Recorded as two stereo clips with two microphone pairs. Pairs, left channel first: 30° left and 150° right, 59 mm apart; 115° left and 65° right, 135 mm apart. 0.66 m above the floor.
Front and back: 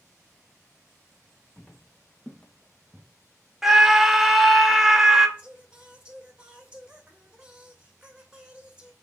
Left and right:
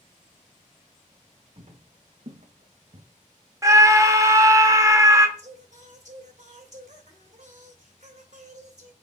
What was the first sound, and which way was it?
Footsteps, 40° right.